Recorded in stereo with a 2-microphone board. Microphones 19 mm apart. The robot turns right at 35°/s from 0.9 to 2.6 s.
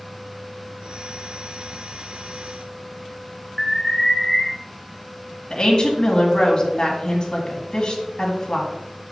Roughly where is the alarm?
Left.